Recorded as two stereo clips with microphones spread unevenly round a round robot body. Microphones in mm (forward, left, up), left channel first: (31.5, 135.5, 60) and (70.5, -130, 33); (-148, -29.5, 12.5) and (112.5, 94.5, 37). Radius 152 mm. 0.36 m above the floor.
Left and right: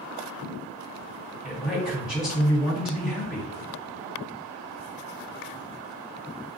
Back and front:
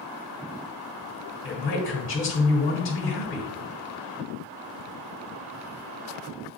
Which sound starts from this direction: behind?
A man speaking, at 1.4 s.